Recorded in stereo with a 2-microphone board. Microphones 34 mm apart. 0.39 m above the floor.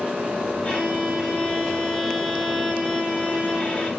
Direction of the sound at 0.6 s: 40° left (ahead or behind).